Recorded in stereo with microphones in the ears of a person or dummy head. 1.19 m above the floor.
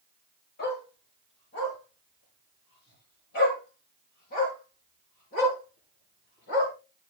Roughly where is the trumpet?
No trumpet in this recording.